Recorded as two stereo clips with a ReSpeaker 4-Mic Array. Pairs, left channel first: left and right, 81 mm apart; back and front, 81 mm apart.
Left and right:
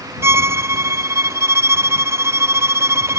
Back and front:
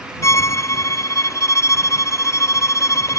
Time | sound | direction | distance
0.2 | a violin | 135° right | ?